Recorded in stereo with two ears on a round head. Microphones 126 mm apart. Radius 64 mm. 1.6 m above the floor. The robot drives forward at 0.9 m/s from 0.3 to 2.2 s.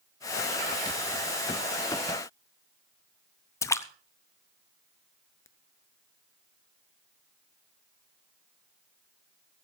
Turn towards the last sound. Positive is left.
turn(degrees=20)  # may be behind; listen again after turning